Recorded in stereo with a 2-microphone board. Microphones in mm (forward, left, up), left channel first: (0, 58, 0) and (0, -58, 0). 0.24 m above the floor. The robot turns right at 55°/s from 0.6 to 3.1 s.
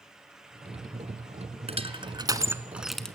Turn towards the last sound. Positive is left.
turn(degrees=10)  # may be behind; listen again after turning